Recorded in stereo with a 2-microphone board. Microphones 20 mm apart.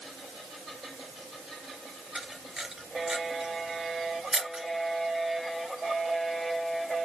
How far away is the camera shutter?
About 2.5 m.